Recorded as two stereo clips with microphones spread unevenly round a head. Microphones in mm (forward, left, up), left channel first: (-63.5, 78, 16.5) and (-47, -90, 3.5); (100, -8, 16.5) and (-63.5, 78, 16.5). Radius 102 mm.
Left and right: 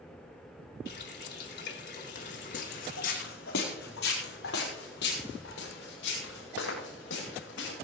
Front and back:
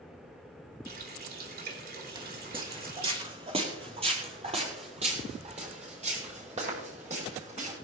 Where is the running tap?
115° left, 2.5 m.